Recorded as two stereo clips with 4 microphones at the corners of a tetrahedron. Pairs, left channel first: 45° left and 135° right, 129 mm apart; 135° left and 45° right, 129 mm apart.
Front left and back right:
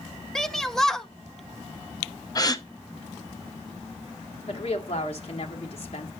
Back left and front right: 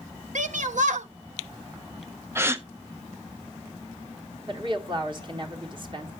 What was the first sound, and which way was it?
A shout, 40° right.